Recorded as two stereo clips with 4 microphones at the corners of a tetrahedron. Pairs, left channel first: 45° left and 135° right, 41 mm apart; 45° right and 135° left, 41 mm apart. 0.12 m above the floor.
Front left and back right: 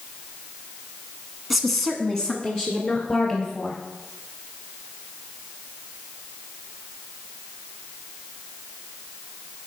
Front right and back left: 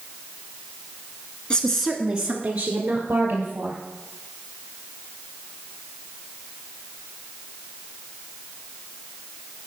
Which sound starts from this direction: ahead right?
A woman speaking, at 1.5 s.